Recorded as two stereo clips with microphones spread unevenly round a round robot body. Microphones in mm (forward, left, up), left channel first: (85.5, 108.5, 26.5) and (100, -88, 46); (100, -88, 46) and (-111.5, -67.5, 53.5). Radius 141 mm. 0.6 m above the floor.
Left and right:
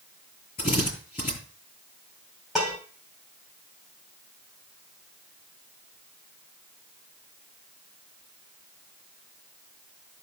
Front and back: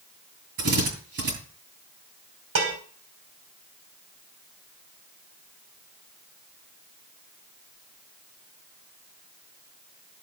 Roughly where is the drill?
Behind.